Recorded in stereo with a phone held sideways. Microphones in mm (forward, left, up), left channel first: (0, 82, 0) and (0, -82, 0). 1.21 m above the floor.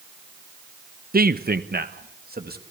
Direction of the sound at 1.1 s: 60° right (ahead or behind).